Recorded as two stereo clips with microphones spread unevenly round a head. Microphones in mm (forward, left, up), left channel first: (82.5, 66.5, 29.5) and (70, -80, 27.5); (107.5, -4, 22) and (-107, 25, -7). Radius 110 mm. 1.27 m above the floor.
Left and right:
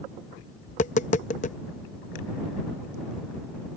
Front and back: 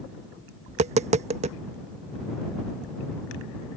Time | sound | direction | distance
0.7 | tapping | 115° left | ?